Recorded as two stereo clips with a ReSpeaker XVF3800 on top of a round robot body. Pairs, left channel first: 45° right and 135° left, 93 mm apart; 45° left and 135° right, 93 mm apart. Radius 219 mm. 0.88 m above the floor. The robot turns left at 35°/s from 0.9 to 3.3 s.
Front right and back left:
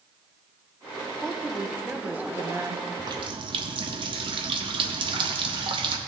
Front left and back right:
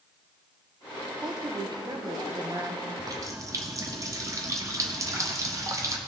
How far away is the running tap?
About 0.8 m.